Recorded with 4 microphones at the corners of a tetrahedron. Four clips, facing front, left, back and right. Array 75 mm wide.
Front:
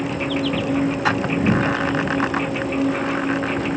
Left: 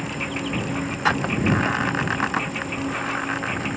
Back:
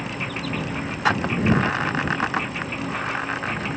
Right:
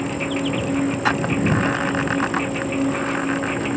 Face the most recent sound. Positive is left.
turn(degrees=-35)